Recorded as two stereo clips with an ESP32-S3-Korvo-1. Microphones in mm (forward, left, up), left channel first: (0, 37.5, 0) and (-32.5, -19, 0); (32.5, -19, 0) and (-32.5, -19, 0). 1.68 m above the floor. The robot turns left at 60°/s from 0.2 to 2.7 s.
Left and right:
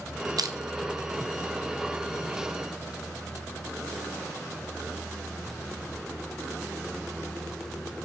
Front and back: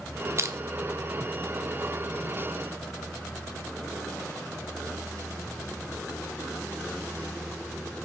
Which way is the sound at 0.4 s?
130° right.